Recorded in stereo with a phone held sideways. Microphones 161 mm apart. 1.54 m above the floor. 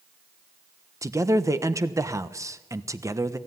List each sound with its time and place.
1.0 s a man speaking: 20° right (ahead or behind), 1.1 m